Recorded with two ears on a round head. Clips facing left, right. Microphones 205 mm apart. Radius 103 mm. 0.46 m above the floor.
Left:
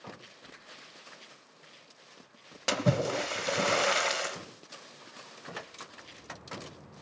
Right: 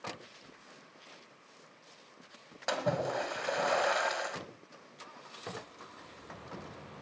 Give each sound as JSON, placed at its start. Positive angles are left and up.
{"t": 2.7, "sound": "a splash", "side_deg": 40, "distance_m": 1.0}
{"t": 5.5, "sound": "footsteps", "side_deg": -85, "distance_m": 9.0}